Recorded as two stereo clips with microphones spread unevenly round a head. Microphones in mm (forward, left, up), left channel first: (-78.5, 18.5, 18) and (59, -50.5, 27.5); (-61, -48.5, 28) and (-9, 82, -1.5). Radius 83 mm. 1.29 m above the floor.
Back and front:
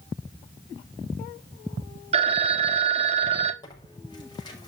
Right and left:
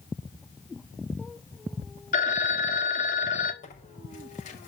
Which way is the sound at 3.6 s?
145° right.